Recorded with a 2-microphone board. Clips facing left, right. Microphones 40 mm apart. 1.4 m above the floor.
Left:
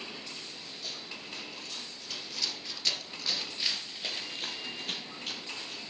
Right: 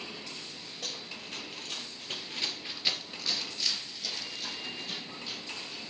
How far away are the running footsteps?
About 2.5 m.